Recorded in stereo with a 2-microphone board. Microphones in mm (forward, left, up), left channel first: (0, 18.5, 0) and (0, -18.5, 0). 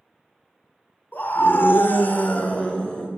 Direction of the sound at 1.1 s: 65° left (ahead or behind).